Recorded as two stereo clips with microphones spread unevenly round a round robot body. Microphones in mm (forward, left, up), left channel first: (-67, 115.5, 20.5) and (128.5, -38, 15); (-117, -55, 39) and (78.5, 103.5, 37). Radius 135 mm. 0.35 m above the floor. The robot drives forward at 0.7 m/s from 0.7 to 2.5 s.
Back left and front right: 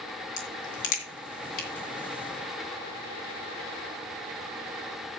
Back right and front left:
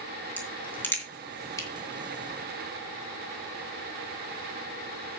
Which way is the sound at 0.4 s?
135° left.